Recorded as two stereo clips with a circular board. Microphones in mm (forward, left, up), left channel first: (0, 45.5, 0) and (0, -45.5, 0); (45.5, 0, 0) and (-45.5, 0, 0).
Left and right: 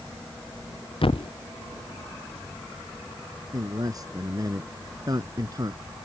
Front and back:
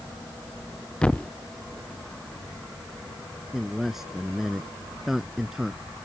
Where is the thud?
75° left.